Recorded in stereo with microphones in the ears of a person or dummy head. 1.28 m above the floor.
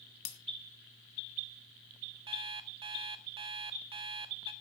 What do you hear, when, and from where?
0.2 s breaking glass: 50° left (ahead or behind), 1.7 m
2.3 s an alarm clock: 25° right (ahead or behind), 1.0 m